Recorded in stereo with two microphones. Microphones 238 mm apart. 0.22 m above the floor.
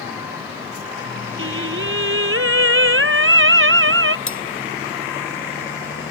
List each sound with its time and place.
1.4 s singing: 60° right (ahead or behind)
4.3 s cutlery clinking: 60° left (ahead or behind)